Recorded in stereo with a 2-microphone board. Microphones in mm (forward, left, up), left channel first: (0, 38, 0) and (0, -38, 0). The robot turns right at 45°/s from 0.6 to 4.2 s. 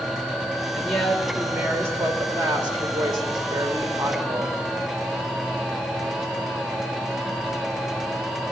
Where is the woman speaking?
160° left, 2.0 m; by 4.6 s 45° right, 2.0 m.